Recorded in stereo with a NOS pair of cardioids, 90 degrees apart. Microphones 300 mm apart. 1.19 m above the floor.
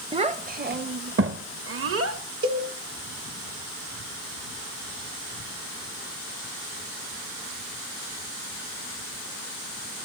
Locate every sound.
0.1 s a child speaking: 20° right, 0.9 m; by 2.2 s 50° right, 2.0 m
2.4 s a cowbell: 70° right, 4 m